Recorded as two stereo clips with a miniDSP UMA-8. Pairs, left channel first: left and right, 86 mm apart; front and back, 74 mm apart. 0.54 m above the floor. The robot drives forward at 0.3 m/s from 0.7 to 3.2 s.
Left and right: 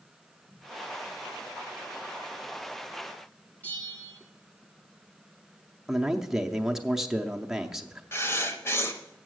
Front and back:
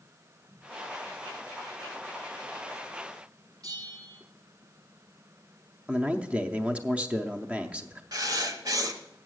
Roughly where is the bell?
Behind left.